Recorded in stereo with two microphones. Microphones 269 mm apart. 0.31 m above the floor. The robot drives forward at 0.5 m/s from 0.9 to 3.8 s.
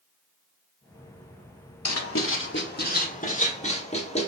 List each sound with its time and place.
1.9 s writing: 70° left (ahead or behind), 0.5 m; by 4.3 s 25° left (ahead or behind), 1.3 m